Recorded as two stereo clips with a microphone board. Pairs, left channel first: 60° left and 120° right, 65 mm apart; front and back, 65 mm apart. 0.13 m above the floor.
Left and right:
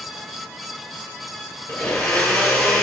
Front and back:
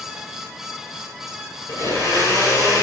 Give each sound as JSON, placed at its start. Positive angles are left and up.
{"t": 1.7, "sound": "a blender", "azimuth_deg": -5, "distance_m": 2.5}